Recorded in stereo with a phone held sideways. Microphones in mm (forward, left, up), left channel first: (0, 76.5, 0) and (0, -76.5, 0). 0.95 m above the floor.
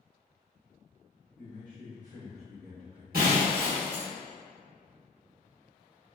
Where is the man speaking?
65° right (ahead or behind), 1.4 m; by 3.0 s 20° right (ahead or behind), 1.1 m.